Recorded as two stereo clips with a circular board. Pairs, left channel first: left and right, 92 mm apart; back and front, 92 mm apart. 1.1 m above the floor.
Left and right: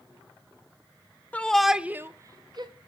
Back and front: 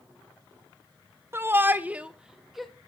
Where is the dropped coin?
No dropped coin in this recording.